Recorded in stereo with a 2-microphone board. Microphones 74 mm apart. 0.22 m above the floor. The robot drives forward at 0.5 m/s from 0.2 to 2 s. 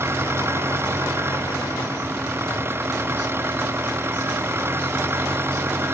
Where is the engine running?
35° right (ahead or behind).